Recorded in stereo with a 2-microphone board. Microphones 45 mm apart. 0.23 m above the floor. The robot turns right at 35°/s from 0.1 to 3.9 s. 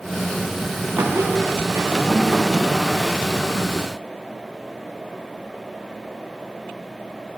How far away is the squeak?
About 3.5 m.